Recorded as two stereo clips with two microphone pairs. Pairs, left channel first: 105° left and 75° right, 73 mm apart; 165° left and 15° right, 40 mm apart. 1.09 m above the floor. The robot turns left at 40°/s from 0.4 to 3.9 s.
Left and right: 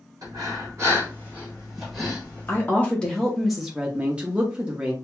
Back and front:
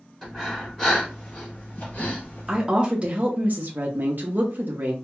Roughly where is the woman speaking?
Ahead left.